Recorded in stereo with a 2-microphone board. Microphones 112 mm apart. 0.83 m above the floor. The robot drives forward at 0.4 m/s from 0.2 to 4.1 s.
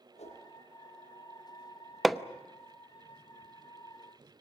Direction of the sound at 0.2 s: 90° left.